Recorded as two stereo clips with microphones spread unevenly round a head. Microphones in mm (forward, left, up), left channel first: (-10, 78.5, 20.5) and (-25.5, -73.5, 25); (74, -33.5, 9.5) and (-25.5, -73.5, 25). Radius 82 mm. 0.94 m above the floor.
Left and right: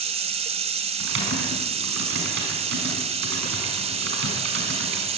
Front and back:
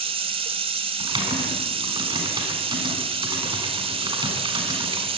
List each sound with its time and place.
0.0 s running water: 140° right, 1.2 m
1.0 s typing on a keyboard: 105° right, 6 m